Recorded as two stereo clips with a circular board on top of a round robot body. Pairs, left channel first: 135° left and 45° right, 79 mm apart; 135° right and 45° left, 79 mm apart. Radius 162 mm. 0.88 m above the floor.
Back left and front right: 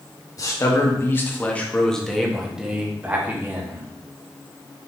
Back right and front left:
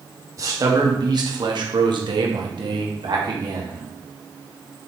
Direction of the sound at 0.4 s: 90° left.